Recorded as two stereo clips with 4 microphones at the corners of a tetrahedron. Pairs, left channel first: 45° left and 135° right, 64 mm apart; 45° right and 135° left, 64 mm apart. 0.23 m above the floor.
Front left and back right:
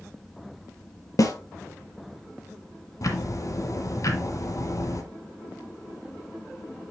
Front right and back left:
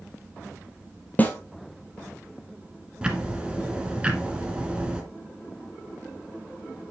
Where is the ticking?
65° left, 1.4 m.